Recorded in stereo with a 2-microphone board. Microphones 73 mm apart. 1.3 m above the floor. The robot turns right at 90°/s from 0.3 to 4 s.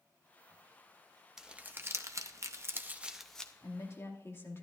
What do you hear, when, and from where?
1.4 s crumpling: 5° right (ahead or behind), 0.7 m; by 3.5 s 15° left (ahead or behind), 0.7 m
3.6 s a woman speaking: 115° left, 2 m; by 4.6 s 145° left, 2 m